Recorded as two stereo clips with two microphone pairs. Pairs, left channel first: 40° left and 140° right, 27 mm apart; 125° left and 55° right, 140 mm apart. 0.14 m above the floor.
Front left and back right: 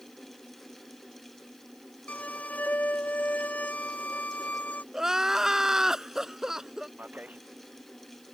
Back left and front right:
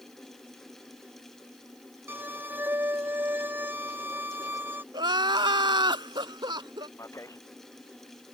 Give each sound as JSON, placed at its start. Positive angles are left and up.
{"t": 2.1, "sound": "a violin", "azimuth_deg": 20}
{"t": 4.9, "sound": "crying", "azimuth_deg": -85}
{"t": 7.0, "sound": "a man speaking", "azimuth_deg": -165}